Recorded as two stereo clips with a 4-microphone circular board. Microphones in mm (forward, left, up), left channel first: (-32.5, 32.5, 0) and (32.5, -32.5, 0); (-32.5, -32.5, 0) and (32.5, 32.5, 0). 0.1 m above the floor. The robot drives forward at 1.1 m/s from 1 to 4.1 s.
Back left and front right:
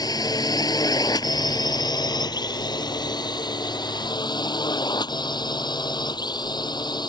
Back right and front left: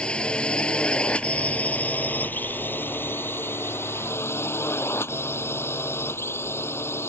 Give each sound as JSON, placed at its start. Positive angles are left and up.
{"t": 0.0, "sound": "a drone", "azimuth_deg": 150}